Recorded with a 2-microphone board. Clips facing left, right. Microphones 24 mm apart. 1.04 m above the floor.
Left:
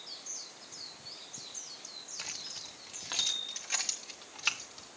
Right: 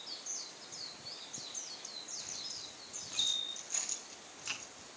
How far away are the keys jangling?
About 1.1 m.